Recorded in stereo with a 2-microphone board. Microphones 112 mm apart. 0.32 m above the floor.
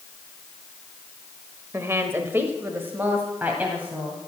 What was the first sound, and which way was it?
A woman speaking, 25° right (ahead or behind).